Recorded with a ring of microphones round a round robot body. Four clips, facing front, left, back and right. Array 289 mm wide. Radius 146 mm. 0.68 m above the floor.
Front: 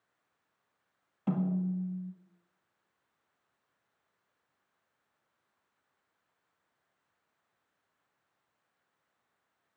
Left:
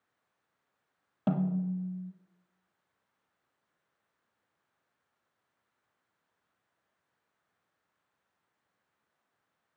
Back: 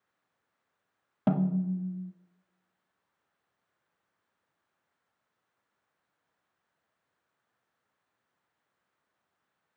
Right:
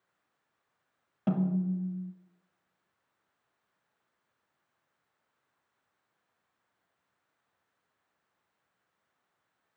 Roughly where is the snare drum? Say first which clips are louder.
Right 1 dB, back 4 dB; behind.